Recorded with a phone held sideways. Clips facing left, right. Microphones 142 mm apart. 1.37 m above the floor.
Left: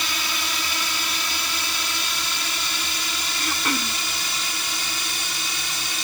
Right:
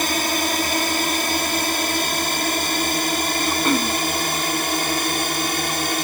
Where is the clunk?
I don't hear a clunk.